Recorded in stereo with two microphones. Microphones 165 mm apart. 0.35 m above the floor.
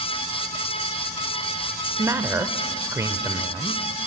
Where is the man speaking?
15° right (ahead or behind), 1.1 m.